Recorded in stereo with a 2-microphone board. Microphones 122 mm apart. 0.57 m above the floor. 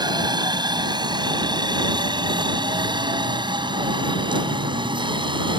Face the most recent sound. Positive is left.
turn(degrees=-40)  # may be behind; listen again after turning